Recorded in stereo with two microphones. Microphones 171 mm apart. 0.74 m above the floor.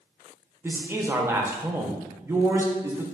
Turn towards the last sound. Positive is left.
turn(degrees=-15)  # may be behind; listen again after turning